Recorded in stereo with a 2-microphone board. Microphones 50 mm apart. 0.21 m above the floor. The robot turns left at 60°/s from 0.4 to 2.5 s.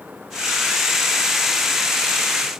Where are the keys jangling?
No keys jangling in this recording.